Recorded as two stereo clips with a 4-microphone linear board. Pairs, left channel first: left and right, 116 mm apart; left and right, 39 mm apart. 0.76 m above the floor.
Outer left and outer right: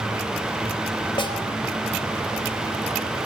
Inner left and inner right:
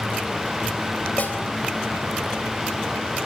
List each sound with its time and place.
1.2 s a snare drum: 45° left (ahead or behind), 4 m